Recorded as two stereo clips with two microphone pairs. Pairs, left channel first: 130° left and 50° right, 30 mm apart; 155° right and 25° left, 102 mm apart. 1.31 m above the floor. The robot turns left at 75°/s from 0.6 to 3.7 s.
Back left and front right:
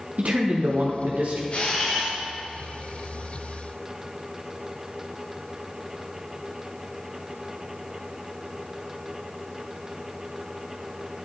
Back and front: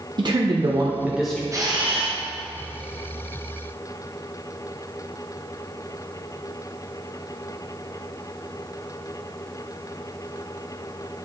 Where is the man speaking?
15° right, 0.7 m; by 1.4 s 75° right, 0.7 m.